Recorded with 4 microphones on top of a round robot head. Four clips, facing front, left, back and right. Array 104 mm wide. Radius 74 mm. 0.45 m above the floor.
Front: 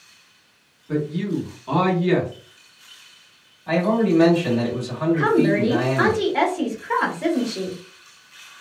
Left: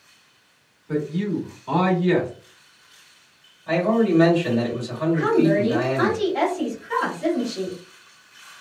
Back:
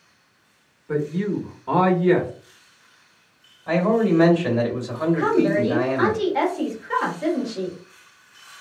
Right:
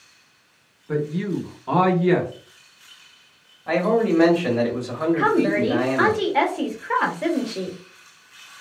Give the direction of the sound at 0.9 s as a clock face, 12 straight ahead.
5 o'clock.